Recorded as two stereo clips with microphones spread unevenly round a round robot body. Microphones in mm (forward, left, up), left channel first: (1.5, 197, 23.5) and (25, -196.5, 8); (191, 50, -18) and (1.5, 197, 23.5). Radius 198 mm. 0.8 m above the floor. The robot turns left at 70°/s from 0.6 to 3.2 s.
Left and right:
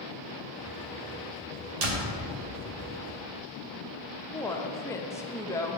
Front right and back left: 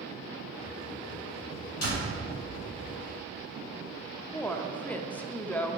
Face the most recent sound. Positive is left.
turn(degrees=15)